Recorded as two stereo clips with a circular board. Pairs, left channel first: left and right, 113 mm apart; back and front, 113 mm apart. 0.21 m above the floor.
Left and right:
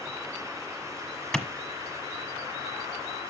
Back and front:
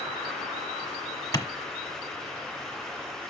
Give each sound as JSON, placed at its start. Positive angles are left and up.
{"t": 1.3, "sound": "a clap", "azimuth_deg": 170, "distance_m": 1.2}